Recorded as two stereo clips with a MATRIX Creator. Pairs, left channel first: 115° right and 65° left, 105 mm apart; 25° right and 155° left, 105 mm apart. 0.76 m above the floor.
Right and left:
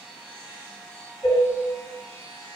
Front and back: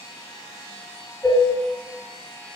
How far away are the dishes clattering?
About 1.6 m.